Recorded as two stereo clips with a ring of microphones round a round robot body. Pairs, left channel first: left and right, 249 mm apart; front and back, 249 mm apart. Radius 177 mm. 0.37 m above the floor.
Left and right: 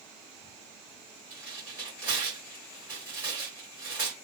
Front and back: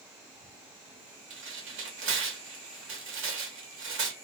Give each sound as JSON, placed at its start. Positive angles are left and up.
{"t": 1.3, "sound": "tearing paper", "azimuth_deg": -170, "distance_m": 0.9}